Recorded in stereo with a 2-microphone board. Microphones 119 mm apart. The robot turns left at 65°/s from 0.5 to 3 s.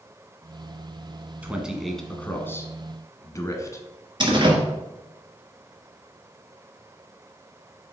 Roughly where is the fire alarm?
I don't hear a fire alarm.